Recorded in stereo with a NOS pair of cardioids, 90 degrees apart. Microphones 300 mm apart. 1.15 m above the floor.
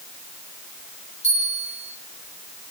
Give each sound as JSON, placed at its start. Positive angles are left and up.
{"t": 1.2, "sound": "a bell", "azimuth_deg": 35, "distance_m": 6.0}